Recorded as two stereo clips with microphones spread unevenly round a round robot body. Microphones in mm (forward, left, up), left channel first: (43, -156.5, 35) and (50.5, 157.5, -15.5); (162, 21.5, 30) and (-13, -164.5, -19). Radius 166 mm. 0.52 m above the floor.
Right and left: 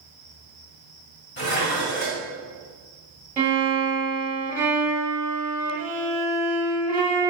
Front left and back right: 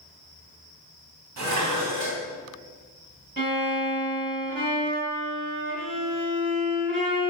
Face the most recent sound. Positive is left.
turn(degrees=170)